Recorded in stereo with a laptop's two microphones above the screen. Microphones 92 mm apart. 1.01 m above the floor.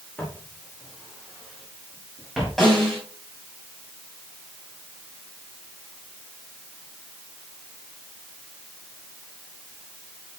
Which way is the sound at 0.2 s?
15° left (ahead or behind).